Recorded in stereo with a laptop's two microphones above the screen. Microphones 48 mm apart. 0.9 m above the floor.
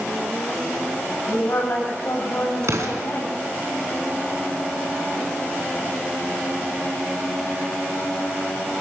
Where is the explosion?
85° right, 3.5 m.